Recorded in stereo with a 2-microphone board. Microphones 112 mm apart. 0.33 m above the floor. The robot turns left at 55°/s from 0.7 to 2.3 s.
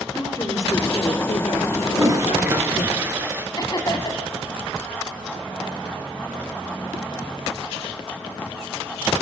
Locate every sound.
0.1 s a woman speaking: 150° left, 7 m; by 2.9 s 65° left, 7 m
1.9 s a toilet flushing: 45° right (ahead or behind), 3 m; by 3.5 s 20° right (ahead or behind), 3 m
3.6 s laughter: 40° left (ahead or behind), 2.5 m